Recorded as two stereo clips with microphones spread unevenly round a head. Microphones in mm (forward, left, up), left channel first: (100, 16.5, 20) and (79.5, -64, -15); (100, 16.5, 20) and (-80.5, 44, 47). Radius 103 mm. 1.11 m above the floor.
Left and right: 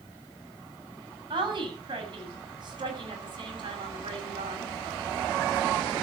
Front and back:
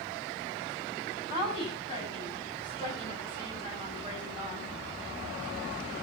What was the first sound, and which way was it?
A woman speaking, 75° right.